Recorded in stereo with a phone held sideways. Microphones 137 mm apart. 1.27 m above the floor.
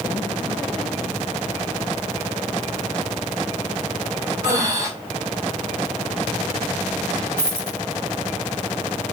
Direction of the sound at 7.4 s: 20° right (ahead or behind).